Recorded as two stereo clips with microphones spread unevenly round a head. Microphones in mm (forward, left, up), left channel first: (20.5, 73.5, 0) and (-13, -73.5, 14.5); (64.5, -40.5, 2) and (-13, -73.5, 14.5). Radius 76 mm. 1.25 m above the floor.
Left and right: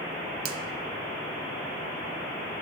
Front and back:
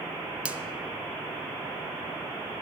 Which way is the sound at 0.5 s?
85° right.